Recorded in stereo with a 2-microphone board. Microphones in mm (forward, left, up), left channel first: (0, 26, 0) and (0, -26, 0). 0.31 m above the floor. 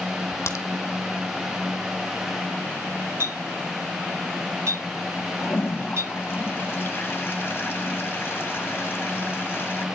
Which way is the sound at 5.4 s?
45° left (ahead or behind).